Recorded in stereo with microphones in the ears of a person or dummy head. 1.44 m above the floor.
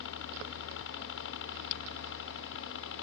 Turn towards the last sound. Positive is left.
turn(degrees=70)  # may be behind; listen again after turning